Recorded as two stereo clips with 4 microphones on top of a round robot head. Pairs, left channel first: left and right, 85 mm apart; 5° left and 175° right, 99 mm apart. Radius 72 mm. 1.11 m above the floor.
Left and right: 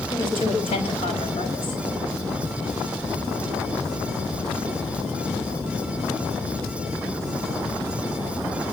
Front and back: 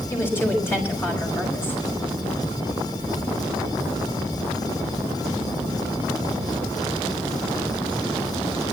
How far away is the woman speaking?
About 5 m.